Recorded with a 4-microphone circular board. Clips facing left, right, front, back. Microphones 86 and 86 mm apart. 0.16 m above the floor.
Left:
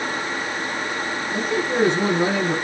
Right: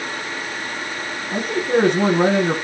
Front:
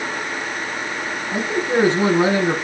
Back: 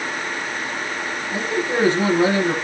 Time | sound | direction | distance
1.3 | a man speaking | 70° right | 4.5 m